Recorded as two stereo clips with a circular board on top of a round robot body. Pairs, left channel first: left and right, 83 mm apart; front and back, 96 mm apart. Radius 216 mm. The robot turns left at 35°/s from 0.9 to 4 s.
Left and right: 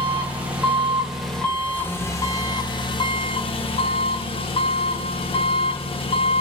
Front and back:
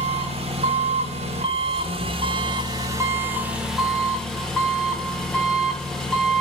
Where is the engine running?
170° right, 1.3 m; by 6.4 s 85° left, 1.3 m.